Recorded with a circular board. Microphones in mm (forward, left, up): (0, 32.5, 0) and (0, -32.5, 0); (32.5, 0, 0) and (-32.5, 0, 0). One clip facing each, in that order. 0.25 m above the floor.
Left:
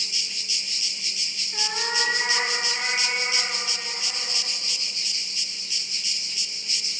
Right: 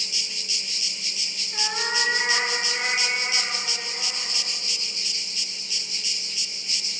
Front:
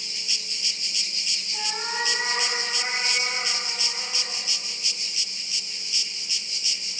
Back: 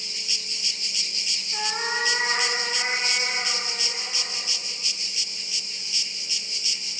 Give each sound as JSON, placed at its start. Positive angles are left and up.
{"t": 1.5, "sound": "a cat meowing", "azimuth_deg": -165, "distance_m": 1.2}